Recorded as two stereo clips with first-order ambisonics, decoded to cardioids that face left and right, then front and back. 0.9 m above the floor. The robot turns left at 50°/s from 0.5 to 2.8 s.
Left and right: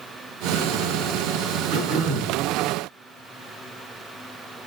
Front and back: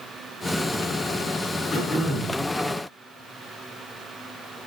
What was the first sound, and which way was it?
Throat clearing, 60° right.